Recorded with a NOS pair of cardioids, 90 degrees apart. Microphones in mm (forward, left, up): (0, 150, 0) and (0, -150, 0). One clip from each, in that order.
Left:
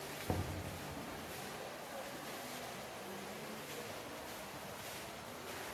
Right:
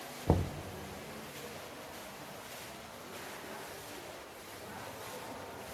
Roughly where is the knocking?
Ahead right.